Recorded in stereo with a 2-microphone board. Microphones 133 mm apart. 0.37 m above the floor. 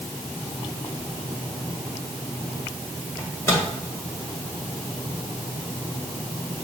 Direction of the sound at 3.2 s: 20° left (ahead or behind).